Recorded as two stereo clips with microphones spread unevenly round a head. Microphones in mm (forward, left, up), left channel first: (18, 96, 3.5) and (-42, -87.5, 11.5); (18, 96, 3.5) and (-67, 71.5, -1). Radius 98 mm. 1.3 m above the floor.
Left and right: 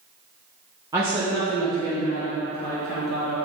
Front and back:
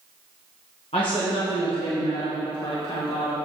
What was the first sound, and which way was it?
A woman speaking, 35° right.